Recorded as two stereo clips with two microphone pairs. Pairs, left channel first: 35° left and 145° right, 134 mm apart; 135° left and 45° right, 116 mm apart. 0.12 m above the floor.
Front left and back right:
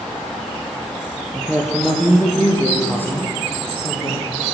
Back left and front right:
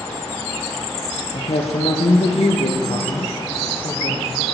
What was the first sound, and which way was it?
A woman speaking, 135° left.